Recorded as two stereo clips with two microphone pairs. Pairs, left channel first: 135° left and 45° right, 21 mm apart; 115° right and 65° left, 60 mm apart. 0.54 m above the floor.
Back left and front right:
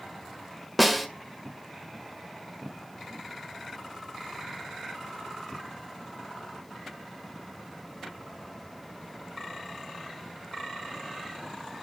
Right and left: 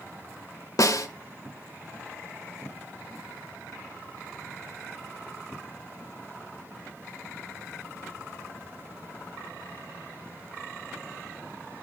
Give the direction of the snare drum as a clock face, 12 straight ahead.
5 o'clock.